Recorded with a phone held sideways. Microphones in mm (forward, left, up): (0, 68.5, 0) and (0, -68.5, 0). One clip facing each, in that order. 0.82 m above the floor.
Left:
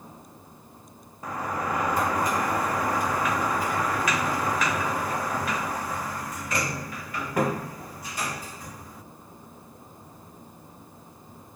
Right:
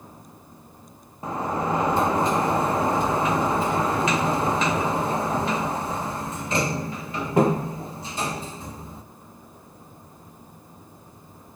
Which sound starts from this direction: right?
A sliding door, at 1.2 s.